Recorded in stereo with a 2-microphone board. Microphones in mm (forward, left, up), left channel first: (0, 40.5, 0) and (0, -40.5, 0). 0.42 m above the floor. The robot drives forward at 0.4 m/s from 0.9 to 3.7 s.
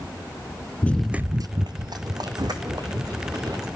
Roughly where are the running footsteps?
Left.